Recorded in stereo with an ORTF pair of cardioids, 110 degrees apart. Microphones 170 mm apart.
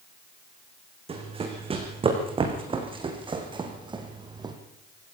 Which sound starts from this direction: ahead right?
Running footsteps, at 1.1 s.